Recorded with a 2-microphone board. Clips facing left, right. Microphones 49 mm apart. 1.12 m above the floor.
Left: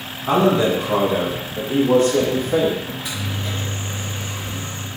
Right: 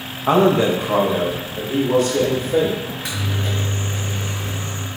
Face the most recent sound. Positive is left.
turn(degrees=-70)  # may be behind; listen again after turning